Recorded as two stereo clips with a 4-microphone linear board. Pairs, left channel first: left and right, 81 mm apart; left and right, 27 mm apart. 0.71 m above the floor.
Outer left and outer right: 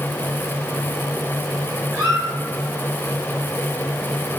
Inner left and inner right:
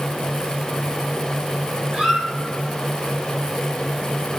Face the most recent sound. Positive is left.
turn(degrees=-35)  # may be behind; listen again after turning